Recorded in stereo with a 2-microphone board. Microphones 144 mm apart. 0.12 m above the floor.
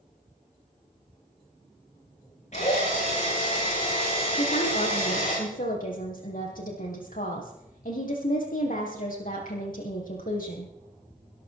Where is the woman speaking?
70° left (ahead or behind), 6 m.